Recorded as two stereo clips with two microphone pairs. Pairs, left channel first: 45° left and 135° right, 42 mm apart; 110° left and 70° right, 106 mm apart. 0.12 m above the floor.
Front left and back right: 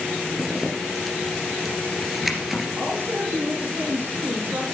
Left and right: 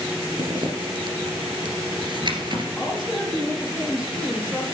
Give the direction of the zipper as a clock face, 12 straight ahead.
2 o'clock.